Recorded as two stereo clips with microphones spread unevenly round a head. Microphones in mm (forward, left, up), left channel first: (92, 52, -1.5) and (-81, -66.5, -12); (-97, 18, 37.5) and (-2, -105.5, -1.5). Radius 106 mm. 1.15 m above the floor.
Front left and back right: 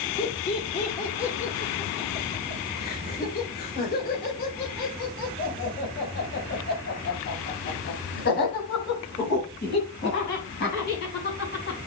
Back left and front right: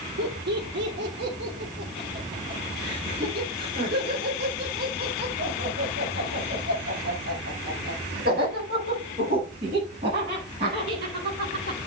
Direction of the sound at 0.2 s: 30° right.